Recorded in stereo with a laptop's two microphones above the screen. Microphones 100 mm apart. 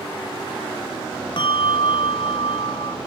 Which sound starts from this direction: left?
A bell, at 1.4 s.